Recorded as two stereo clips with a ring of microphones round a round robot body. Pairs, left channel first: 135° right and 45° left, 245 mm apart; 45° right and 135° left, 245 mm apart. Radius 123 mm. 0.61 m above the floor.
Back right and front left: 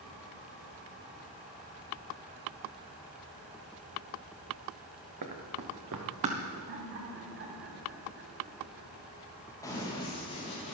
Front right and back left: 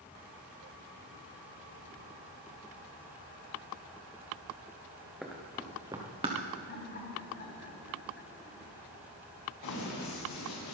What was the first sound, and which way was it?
Running footsteps, 45° left.